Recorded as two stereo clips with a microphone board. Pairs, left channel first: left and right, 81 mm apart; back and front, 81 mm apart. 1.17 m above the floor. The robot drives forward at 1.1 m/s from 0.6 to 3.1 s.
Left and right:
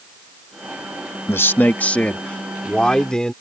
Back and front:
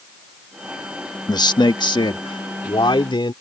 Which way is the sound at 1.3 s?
145° left.